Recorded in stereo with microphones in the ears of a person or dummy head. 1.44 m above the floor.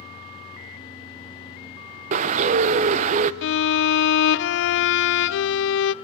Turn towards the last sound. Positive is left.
turn(degrees=70)  # may be behind; listen again after turning